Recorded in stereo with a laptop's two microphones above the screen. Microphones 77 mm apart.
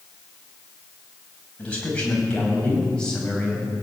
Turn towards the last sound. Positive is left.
turn(degrees=10)  # may be behind; listen again after turning